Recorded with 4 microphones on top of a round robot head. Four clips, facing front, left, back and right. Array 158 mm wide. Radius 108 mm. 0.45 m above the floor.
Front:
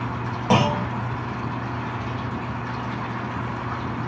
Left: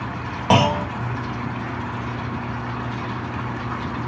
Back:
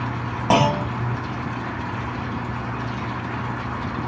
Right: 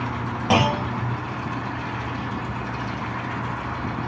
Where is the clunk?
115° left, 1.1 m.